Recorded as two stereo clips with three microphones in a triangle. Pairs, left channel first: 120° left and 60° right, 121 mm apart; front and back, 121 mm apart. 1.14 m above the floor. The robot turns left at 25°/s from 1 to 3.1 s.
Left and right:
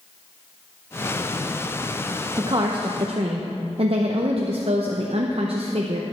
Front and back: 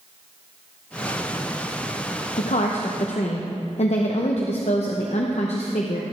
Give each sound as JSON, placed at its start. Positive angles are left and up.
{"t": 2.4, "sound": "a woman speaking", "azimuth_deg": -5, "distance_m": 0.7}